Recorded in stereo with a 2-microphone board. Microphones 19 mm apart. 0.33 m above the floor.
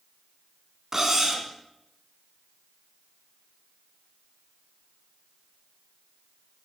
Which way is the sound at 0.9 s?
20° right (ahead or behind).